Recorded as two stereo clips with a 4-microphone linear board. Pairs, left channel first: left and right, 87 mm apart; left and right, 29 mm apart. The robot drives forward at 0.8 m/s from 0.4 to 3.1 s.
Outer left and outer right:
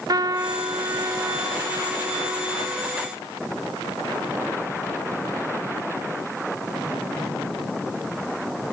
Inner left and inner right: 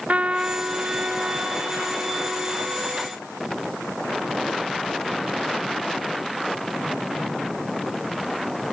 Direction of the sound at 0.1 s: 50° right (ahead or behind).